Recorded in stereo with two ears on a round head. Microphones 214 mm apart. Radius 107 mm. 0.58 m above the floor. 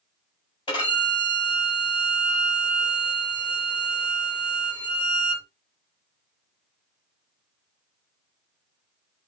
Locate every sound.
0.7 s a violin: 20° left (ahead or behind), 3 m